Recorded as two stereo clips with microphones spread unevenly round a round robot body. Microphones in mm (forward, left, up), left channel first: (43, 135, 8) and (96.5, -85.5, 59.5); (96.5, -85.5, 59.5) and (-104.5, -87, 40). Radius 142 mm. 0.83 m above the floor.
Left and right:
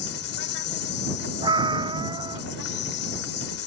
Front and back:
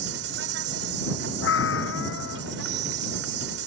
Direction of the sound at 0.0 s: 145° left.